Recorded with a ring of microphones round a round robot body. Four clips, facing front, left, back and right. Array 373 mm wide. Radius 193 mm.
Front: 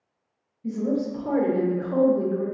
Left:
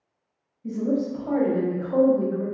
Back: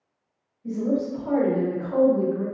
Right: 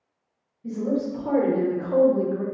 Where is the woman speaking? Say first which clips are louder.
Left 1 dB, back 1 dB; 45° right, 1.4 m; by 2.4 s 95° right, 1.2 m.